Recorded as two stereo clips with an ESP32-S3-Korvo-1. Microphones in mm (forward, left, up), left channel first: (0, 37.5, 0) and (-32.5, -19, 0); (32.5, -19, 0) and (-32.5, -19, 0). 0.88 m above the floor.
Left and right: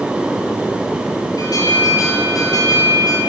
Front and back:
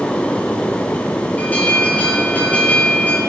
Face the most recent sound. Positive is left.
turn(degrees=70)